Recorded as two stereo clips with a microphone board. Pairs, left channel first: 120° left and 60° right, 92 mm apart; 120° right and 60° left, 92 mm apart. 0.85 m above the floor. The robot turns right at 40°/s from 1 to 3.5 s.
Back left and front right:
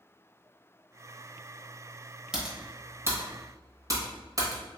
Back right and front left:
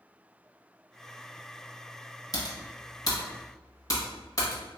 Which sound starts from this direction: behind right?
Typing on a keyboard, at 2.3 s.